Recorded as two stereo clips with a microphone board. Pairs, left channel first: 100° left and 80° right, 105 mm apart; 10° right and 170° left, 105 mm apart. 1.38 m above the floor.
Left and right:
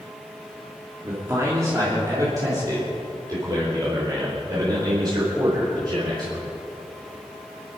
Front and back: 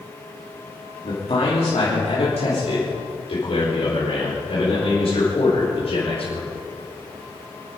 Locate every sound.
1.0 s a man speaking: 15° right, 3 m; by 6.5 s 30° right, 6 m